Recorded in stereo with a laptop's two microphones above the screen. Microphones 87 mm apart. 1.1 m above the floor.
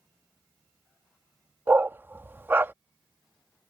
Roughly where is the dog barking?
Right.